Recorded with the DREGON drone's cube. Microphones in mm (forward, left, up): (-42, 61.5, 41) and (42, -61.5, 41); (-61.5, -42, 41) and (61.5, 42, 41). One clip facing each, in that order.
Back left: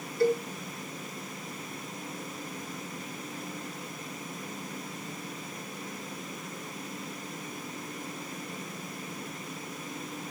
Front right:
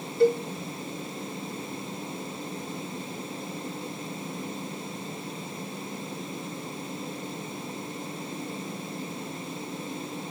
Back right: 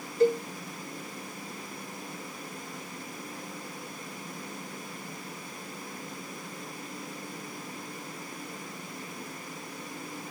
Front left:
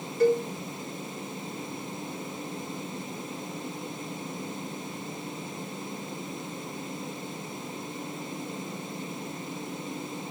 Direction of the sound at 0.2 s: 95° right.